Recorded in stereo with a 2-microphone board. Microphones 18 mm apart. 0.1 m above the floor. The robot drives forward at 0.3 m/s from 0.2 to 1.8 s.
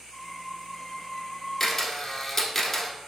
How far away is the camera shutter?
About 0.9 m.